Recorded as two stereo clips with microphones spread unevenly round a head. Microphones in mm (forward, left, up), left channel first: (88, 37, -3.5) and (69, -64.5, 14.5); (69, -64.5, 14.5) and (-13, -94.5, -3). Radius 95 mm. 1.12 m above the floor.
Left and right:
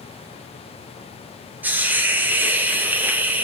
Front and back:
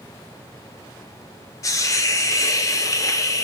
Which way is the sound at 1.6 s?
20° right.